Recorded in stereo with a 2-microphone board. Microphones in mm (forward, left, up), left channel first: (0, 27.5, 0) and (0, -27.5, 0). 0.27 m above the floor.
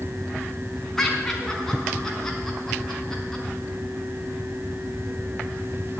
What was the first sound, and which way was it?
Laughter, 5° left (ahead or behind).